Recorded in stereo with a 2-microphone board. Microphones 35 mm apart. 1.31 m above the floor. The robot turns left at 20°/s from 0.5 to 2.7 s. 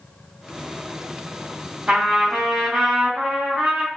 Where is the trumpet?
35° right (ahead or behind), 1.7 m; by 3.9 s 25° right (ahead or behind), 1.7 m.